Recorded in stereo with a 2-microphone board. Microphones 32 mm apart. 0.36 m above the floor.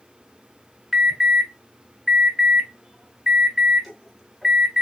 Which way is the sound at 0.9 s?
5° right (ahead or behind).